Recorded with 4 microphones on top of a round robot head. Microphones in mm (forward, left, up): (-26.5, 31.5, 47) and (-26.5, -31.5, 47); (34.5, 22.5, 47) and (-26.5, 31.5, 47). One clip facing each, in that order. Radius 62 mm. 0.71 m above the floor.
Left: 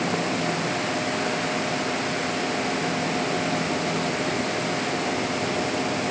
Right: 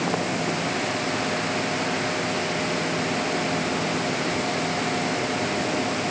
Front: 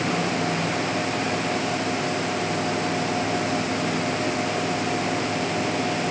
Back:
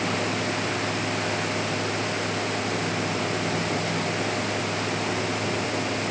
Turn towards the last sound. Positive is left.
No sound to turn to.